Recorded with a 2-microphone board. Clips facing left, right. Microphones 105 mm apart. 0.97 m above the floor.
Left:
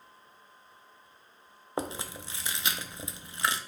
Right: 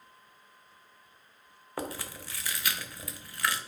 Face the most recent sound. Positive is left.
turn(degrees=20)  # may be behind; listen again after turning